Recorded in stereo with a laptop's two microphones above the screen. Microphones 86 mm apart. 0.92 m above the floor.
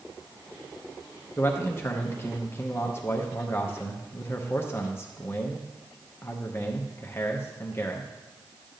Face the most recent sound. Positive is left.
turn(degrees=25)  # may be behind; listen again after turning